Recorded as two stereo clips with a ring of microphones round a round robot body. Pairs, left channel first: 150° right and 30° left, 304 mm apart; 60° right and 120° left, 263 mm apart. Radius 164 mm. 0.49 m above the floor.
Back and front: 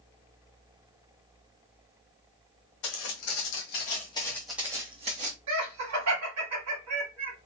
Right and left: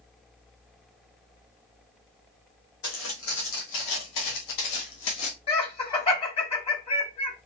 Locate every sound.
2.8 s footsteps: 120° right, 1.5 m; by 5.4 s 35° right, 1.5 m
5.5 s laughter: 5° left, 2.0 m